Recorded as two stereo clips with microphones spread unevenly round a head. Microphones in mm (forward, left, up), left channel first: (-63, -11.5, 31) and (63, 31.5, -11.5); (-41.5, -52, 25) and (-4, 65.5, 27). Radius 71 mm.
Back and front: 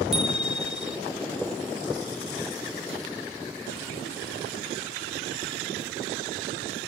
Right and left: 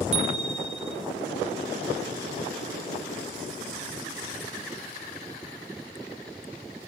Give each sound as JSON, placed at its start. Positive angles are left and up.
{"t": 0.1, "sound": "a bicycle bell", "azimuth_deg": 105, "distance_m": 2.0}